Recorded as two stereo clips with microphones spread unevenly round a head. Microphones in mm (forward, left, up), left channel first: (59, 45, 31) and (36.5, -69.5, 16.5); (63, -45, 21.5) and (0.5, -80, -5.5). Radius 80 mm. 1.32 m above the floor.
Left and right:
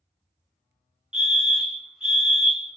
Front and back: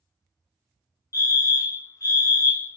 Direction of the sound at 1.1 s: 20° right.